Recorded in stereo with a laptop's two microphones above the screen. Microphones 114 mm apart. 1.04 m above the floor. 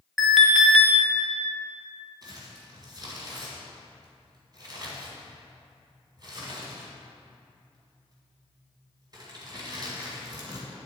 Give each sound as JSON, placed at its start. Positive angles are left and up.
{"t": 0.2, "sound": "an alarm", "side_deg": 0, "distance_m": 1.1}
{"t": 2.2, "sound": "crumpling", "side_deg": -40, "distance_m": 1.8}